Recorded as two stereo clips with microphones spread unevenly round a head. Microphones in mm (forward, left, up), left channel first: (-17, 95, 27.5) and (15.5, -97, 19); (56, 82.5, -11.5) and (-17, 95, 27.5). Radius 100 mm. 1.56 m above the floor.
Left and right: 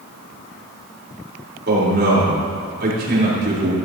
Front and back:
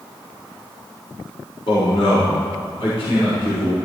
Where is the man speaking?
40° right, 5 m.